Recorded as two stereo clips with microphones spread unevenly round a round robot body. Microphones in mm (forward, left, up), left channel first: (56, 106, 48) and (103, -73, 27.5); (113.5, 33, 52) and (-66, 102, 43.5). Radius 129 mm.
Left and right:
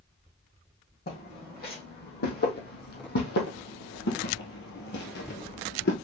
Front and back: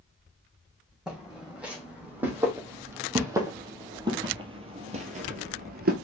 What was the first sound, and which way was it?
Footsteps, 70° left.